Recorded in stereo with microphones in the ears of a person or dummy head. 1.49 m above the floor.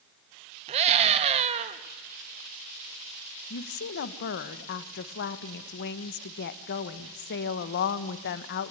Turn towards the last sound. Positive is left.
turn(degrees=55)  # may be behind; listen again after turning